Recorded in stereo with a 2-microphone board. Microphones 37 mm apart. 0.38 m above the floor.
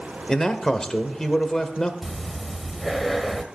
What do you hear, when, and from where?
0.3 s a man speaking: 15° left (ahead or behind), 1.1 m
2.0 s breathing: centre (ahead or behind), 1.0 m